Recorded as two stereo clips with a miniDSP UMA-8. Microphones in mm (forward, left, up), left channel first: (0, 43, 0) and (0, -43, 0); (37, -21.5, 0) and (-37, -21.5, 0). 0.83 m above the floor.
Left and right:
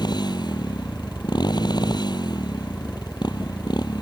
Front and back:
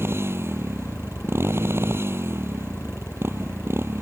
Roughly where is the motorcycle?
Behind left.